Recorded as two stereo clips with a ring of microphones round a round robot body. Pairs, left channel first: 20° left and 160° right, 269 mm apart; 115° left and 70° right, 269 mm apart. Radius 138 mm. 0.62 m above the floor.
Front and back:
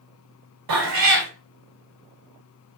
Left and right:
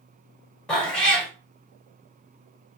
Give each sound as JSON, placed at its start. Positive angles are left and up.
{"t": 0.7, "sound": "a cat meowing", "azimuth_deg": -160, "distance_m": 1.0}